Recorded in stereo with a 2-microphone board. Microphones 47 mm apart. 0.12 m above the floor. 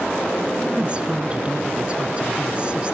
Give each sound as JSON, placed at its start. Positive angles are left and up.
{"t": 0.7, "sound": "a woman speaking", "side_deg": -25, "distance_m": 1.5}